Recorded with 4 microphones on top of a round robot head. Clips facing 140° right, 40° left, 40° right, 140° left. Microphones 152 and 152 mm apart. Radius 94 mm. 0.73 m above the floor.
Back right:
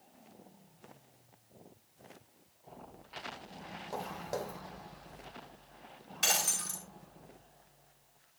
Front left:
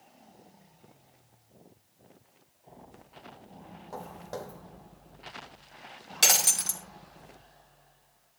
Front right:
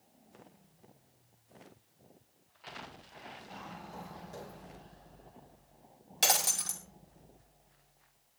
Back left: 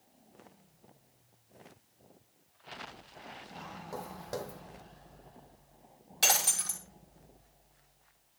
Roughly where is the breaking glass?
Ahead left.